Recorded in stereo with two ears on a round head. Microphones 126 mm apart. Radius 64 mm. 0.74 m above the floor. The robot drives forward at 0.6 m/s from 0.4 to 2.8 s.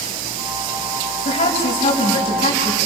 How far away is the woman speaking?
About 5 m.